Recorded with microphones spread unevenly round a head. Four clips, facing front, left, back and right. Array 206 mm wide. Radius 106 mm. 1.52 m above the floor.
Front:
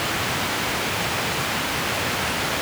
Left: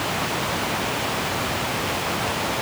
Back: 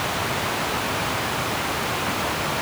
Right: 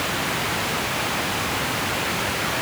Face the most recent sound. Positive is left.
No sound to turn to.